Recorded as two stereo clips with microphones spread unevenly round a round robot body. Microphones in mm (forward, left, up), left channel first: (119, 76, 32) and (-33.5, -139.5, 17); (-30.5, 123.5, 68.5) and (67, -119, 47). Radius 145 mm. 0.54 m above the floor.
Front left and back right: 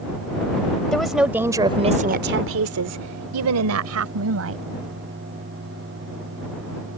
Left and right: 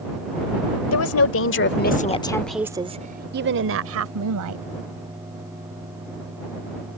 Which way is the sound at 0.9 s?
145° left.